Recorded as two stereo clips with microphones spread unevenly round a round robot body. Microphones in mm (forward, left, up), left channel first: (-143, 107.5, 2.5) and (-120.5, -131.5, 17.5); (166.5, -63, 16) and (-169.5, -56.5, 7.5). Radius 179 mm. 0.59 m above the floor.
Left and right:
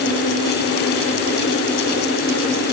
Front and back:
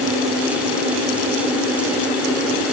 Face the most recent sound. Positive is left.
No sound to turn to.